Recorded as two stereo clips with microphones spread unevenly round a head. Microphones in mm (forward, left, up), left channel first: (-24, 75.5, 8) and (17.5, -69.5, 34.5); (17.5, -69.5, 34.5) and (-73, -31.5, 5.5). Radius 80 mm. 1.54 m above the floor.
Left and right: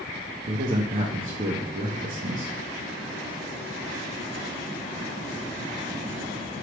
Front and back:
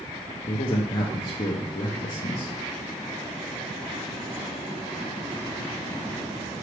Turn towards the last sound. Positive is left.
turn(degrees=-40)